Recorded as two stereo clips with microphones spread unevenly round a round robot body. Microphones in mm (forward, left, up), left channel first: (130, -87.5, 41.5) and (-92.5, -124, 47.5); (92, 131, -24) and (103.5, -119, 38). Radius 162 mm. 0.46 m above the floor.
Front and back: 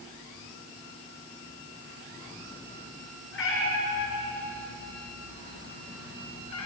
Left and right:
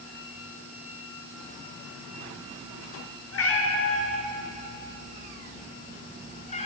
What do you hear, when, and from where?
3.3 s a cat meowing: 60° left, 4.5 m; by 6.7 s 25° left, 3.5 m